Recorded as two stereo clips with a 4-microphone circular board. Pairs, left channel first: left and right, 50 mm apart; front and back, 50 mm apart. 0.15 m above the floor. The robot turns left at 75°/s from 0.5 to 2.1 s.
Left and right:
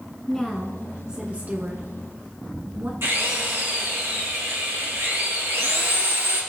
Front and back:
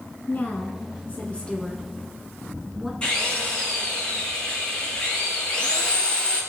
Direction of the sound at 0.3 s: 20° left.